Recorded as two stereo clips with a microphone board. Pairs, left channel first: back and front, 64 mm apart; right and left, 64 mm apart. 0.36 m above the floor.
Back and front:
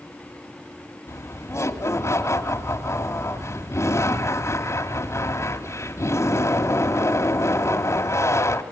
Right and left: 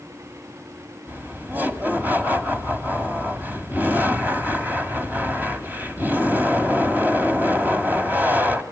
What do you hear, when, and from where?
1.1 s laughter: 150° left, 1.9 m